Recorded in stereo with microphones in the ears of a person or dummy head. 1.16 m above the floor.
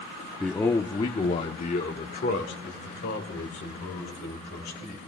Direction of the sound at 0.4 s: Centre (ahead or behind).